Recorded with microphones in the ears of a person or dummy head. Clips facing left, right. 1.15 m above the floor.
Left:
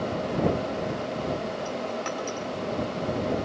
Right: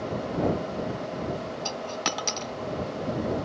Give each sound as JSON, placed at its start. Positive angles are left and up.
{"t": 1.6, "sound": "a dropped coin", "side_deg": -45}